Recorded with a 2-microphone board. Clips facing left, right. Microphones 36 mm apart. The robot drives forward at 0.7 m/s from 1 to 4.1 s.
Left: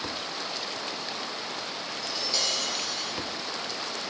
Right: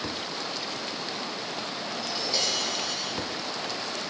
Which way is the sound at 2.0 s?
5° right (ahead or behind).